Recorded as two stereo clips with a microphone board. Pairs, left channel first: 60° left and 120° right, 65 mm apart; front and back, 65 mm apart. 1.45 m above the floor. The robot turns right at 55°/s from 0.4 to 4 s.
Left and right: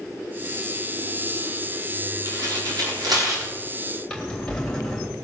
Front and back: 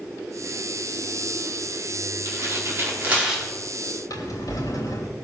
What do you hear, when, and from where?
2.2 s tearing paper: 160° right, 4.5 m; by 3.5 s 95° right, 4.5 m
4.1 s a drawer: 15° right, 3 m